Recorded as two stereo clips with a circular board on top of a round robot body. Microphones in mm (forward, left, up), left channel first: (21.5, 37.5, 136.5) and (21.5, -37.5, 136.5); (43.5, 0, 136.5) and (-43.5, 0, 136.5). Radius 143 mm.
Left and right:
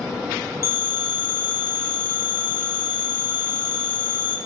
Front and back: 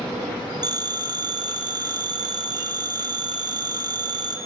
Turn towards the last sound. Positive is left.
turn(degrees=140)